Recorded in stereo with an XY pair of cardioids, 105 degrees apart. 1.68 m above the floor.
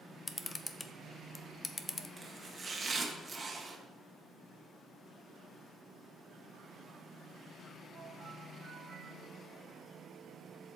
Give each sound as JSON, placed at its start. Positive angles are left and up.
{"t": 0.3, "sound": "a camera shutter", "azimuth_deg": 30, "distance_m": 0.8}
{"t": 2.2, "sound": "chopping", "azimuth_deg": -30, "distance_m": 1.9}